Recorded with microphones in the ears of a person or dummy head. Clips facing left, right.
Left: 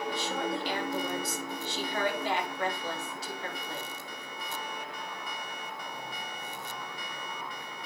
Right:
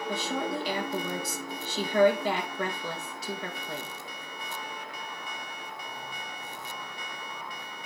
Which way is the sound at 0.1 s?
75° right (ahead or behind).